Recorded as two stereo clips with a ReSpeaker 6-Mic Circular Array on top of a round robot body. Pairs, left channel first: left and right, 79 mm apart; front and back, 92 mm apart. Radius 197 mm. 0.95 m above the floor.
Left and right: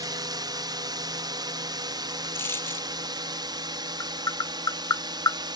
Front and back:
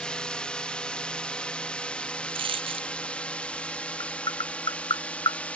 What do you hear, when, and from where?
0.0 s a drone: 75° right
2.4 s a dropped coin: 155° left
4.0 s tapping: 45° left